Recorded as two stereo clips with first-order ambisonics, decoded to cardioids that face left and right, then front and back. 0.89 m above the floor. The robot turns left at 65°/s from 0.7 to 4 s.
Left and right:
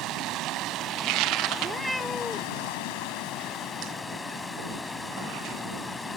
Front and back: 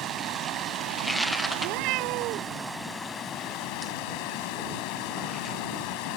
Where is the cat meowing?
150° right; by 2.6 s 145° left.